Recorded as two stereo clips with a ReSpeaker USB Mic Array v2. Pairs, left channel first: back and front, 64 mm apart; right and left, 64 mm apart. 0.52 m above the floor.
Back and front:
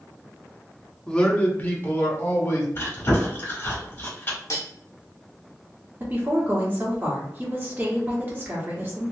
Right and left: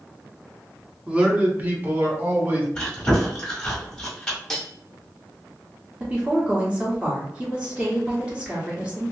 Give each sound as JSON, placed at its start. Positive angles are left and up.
{"t": 1.1, "sound": "a man speaking", "azimuth_deg": 130, "distance_m": 0.6}
{"t": 2.8, "sound": "chewing", "azimuth_deg": -165, "distance_m": 1.6}
{"t": 4.5, "sound": "cutlery clinking", "azimuth_deg": -170, "distance_m": 0.7}
{"t": 6.0, "sound": "a woman speaking", "azimuth_deg": 35, "distance_m": 1.2}